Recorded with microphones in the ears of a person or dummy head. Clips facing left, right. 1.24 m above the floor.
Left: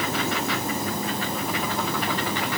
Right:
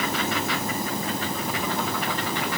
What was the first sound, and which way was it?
Only background noise.